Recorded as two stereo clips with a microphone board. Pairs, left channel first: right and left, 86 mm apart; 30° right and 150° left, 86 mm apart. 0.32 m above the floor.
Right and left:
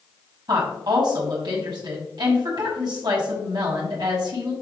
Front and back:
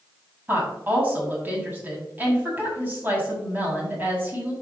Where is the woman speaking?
85° left, 2.5 m.